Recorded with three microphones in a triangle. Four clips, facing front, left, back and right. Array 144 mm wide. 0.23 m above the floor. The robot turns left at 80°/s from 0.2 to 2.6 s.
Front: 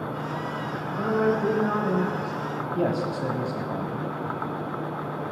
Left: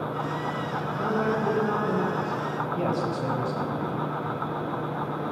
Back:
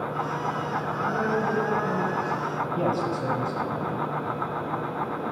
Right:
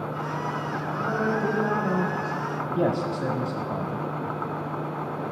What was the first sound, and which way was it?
A woman speaking, 15° left.